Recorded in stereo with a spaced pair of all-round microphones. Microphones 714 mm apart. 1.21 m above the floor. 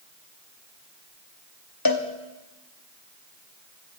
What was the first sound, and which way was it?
A cowbell, 30° left (ahead or behind).